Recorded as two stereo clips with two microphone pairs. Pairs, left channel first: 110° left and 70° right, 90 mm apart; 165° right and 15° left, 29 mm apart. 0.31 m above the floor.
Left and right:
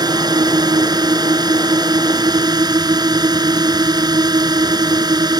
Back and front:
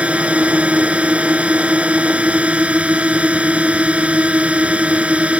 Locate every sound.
0.0 s a drone: 25° right